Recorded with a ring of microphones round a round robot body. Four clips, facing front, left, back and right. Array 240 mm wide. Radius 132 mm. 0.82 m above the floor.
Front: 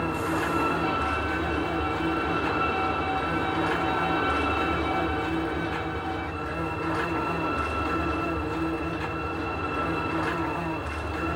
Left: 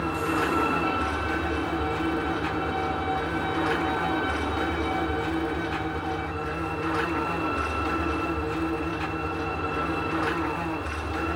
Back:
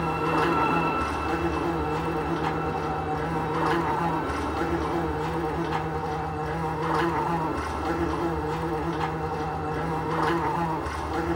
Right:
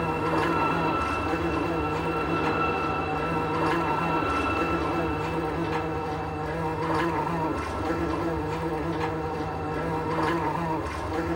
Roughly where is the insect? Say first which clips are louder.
Right 1 dB, back 3 dB; behind.